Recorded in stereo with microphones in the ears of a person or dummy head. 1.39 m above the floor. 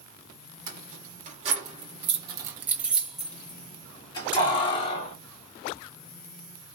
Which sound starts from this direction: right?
Keys jangling, at 0.7 s.